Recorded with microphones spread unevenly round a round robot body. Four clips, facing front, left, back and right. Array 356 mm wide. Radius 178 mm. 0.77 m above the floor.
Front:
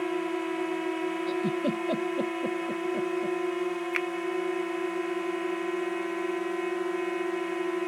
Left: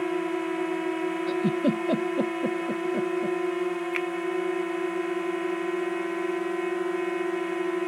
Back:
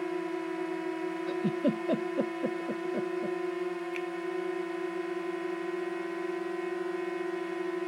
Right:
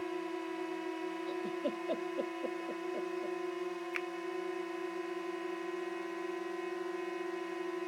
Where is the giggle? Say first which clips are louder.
Left 13 dB, back 1 dB; 100° left.